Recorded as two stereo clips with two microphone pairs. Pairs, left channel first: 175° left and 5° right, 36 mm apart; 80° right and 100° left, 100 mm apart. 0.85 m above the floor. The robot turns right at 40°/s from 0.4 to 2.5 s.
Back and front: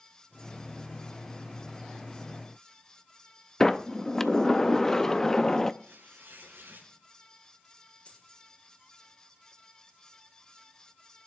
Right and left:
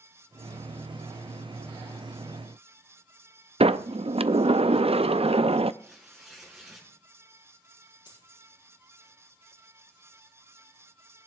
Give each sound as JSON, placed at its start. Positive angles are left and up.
{"t": 3.6, "sound": "a sliding door", "azimuth_deg": 95, "distance_m": 0.5}
{"t": 5.8, "sound": "tearing paper", "azimuth_deg": 15, "distance_m": 5.5}
{"t": 8.1, "sound": "a dropped coin", "azimuth_deg": -125, "distance_m": 6.5}